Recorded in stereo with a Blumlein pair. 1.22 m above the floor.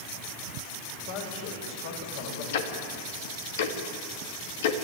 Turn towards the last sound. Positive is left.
turn(degrees=55)